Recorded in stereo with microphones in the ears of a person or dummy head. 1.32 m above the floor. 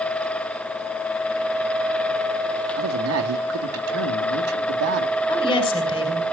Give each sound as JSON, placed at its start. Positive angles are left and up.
{"t": 2.8, "sound": "a man speaking", "side_deg": -70, "distance_m": 2.0}
{"t": 5.3, "sound": "a woman speaking", "side_deg": 25, "distance_m": 5.5}